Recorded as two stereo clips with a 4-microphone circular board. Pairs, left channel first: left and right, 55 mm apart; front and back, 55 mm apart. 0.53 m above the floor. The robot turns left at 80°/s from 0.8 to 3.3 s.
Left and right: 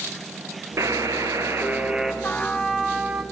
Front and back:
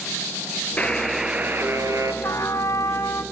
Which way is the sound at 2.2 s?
40° left.